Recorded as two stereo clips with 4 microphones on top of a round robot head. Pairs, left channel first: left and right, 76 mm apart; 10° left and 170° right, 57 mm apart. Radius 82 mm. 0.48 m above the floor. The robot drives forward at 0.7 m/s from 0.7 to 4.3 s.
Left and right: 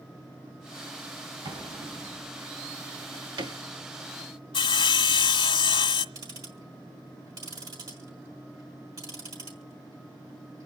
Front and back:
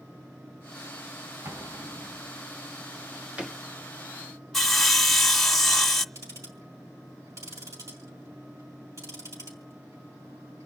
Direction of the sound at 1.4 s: 125° right.